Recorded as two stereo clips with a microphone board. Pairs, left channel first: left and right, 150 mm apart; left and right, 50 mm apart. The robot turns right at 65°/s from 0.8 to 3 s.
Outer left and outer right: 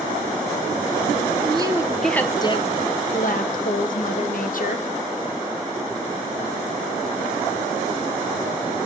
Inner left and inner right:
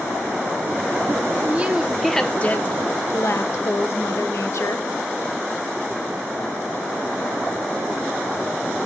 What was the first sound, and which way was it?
A woman speaking, 40° right.